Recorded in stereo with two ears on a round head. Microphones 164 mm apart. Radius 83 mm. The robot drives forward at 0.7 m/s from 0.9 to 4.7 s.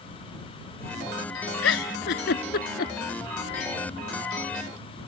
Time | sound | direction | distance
1.6 | a giggle | 75° left (ahead or behind) | ?